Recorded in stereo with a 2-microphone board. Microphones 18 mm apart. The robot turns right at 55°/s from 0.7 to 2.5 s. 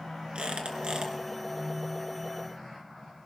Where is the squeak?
60° right (ahead or behind), 2 m; by 1.1 s 40° right (ahead or behind), 2 m.